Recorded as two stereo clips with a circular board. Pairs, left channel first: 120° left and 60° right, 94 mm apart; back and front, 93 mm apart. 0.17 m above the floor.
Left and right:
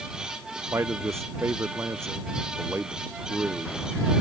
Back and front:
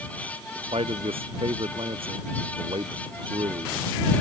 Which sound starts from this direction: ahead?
A man speaking, at 0.7 s.